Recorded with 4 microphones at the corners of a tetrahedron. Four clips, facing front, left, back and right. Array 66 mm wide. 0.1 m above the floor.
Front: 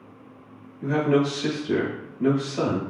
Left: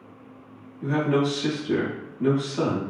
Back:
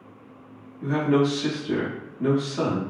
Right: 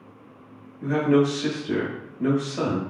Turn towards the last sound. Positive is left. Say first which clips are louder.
# right 3 dB, even
turn(degrees=-90)